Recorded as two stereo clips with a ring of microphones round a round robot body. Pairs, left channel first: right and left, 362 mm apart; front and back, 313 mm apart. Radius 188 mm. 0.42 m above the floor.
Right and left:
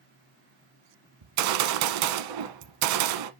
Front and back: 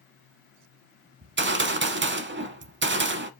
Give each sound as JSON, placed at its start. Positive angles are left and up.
{"t": 1.2, "sound": "a gunshot", "azimuth_deg": 125, "distance_m": 0.8}